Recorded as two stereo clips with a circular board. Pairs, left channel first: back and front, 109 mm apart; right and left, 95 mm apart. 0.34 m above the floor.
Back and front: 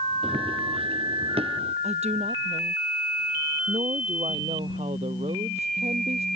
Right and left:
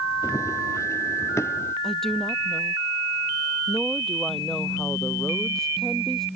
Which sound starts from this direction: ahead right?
Running footsteps, at 0.2 s.